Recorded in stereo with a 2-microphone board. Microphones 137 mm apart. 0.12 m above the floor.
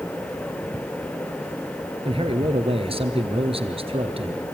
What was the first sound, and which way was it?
A man speaking, 45° right (ahead or behind).